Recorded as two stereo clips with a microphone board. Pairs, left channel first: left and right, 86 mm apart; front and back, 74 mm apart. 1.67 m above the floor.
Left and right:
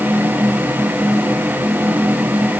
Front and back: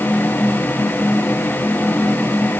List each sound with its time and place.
Only background noise.